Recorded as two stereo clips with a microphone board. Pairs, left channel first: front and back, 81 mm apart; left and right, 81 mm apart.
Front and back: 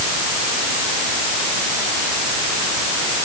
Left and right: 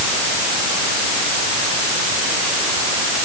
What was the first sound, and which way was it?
Only background noise.